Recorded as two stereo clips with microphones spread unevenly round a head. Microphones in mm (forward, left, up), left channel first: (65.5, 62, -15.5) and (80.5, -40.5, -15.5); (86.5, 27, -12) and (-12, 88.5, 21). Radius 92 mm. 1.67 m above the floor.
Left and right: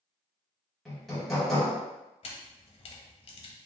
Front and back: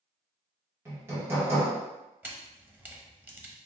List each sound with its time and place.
0.8 s hammering: 175° right, 1.1 m
2.2 s a camera shutter: 75° left, 1.0 m